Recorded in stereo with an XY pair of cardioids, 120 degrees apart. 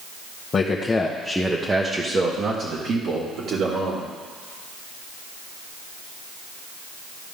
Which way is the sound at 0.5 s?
35° left.